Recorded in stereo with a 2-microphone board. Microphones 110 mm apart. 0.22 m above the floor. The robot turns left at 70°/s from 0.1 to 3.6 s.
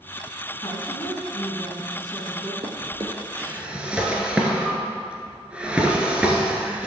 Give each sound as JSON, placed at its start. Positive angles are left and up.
{"t": 0.6, "sound": "a woman speaking", "azimuth_deg": 105, "distance_m": 2.0}
{"t": 2.6, "sound": "a drawer", "side_deg": -70, "distance_m": 1.3}